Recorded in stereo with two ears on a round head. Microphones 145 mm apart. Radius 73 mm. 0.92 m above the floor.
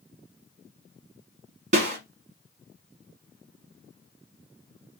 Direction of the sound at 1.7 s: 45° right (ahead or behind).